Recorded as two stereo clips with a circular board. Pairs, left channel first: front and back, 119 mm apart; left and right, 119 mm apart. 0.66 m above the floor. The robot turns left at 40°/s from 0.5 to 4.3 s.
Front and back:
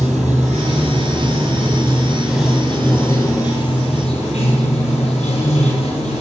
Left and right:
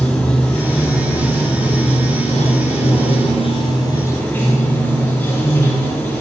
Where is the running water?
175° left, 3 m; by 6.2 s 25° left, 3 m.